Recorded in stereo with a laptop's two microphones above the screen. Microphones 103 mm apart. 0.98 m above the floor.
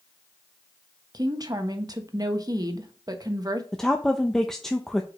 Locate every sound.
1.1 s a woman speaking: 40° right (ahead or behind), 1.1 m
3.7 s a woman speaking: 5° left (ahead or behind), 0.6 m